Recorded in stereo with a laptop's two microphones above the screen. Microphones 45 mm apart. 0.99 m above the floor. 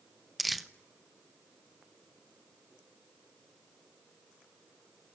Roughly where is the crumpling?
Centre.